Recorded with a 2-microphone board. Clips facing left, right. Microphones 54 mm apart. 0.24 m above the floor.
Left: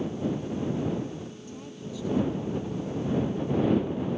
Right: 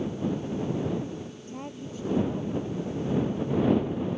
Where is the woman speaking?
40° right (ahead or behind).